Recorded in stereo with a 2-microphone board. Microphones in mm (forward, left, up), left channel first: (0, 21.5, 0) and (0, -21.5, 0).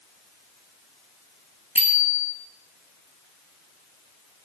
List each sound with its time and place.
1.8 s a bicycle bell: 35° right (ahead or behind), 6.5 m